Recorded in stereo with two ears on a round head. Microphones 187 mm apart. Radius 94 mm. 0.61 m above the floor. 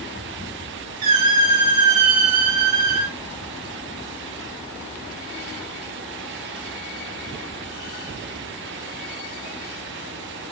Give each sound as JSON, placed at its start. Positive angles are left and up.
{"t": 1.0, "sound": "a squeak", "side_deg": -85, "distance_m": 4.0}